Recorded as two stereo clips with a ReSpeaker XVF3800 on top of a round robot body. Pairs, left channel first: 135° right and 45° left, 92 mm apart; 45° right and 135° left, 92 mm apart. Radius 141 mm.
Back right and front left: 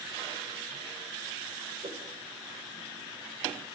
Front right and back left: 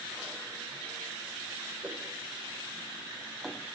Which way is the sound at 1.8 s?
60° left.